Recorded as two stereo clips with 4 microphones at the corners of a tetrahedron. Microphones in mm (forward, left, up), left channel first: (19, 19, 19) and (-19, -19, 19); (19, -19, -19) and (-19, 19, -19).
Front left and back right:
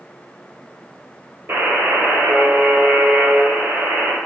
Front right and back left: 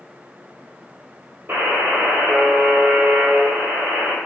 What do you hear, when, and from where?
1.5 s a buzzer: straight behind, 1.1 m